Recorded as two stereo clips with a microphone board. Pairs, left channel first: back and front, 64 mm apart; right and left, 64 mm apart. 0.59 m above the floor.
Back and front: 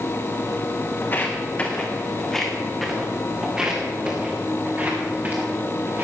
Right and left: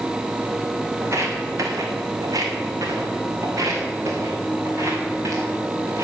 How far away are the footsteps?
About 1.9 m.